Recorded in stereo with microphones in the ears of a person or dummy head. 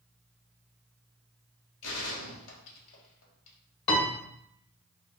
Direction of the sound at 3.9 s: 30° left (ahead or behind).